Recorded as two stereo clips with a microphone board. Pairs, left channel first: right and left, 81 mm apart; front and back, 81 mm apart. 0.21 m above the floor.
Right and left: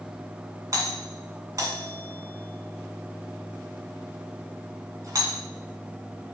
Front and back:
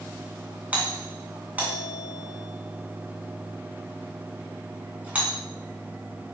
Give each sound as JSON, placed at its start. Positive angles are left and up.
{"t": 0.7, "sound": "a doorbell", "azimuth_deg": 115, "distance_m": 2.5}